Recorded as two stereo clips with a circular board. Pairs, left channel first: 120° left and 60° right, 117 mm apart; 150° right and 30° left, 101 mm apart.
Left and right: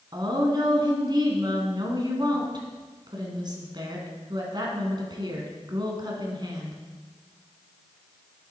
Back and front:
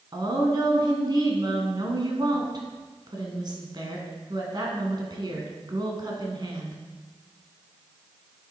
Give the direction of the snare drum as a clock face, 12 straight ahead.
No snare drum in this recording.